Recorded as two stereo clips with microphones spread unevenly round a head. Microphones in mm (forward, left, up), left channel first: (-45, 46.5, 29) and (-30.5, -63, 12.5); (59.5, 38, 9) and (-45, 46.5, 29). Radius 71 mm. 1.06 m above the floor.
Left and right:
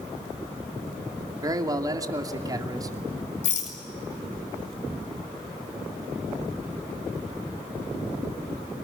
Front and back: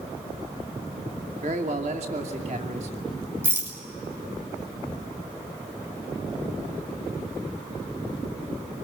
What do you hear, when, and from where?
1.4 s a man speaking: 140° right, 2.5 m
3.4 s a rattle: 105° left, 6 m